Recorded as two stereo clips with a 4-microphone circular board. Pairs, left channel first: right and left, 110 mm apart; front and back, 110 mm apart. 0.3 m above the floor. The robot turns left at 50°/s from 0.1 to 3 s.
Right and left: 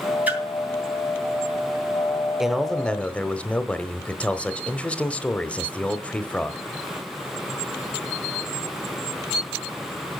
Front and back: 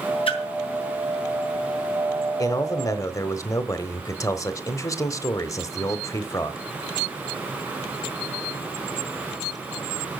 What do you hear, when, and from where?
0.3 s a splash: 15° left, 3 m; by 0.4 s 10° left, 3 m
2.4 s a man speaking: 10° left, 0.9 m; by 6.6 s 20° right, 0.9 m